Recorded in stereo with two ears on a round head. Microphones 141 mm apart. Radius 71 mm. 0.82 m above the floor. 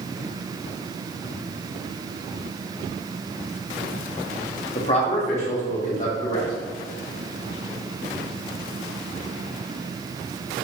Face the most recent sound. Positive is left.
turn(degrees=50)  # may be behind; listen again after turning